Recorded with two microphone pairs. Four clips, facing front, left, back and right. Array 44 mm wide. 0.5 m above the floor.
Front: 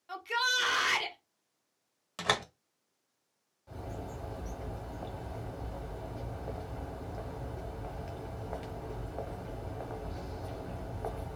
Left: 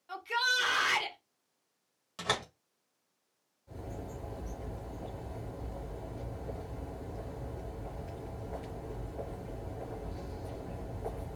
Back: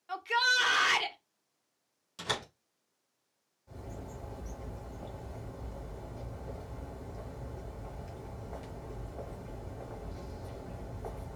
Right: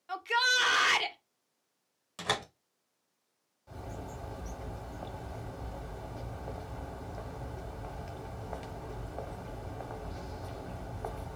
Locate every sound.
0.1 s a shout: 125° right, 0.8 m
2.2 s a door slam: 10° right, 1.2 m
3.7 s a bird: 50° right, 0.9 m